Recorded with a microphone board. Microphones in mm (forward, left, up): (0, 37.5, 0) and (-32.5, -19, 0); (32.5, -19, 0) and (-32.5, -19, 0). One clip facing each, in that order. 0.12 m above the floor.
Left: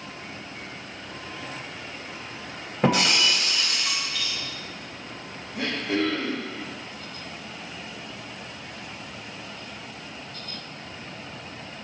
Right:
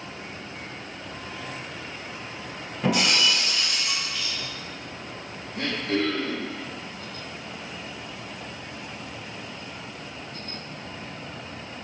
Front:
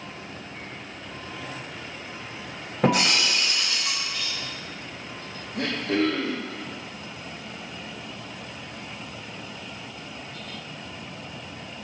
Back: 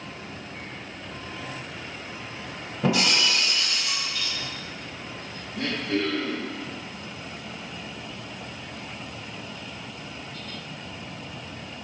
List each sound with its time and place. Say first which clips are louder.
2.8 s breaking glass: left 1 dB, front 2 dB; 20° left, 3 m
5.5 s throat clearing: even, front 2 dB; 15° right, 1.8 m